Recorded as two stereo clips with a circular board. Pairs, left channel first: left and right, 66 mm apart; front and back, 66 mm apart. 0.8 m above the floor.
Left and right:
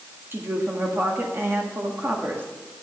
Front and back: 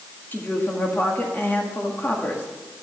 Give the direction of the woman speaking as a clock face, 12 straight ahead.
2 o'clock.